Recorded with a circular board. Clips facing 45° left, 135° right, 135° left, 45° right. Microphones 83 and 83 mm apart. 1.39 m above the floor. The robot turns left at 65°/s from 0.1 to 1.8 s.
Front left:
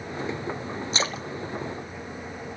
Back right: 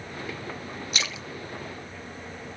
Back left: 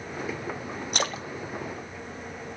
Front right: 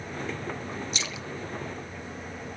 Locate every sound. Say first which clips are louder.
0.9 s a splash: front left 5 dB, back left 6 dB; 105° left, 0.6 m; by 1.3 s 85° left, 0.6 m